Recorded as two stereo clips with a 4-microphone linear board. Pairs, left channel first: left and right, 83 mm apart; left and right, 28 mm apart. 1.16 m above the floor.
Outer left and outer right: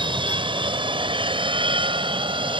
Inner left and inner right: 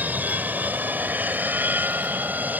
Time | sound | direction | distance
0.0 | an aircraft | 75° right (ahead or behind) | ?